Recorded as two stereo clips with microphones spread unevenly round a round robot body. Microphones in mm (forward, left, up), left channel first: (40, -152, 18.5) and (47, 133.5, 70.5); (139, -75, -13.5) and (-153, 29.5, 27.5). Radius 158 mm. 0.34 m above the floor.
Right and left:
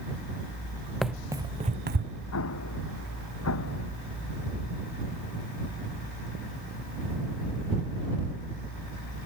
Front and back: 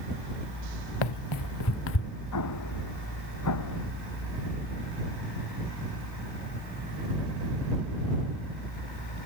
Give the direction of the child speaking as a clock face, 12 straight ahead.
No child speaking in this recording.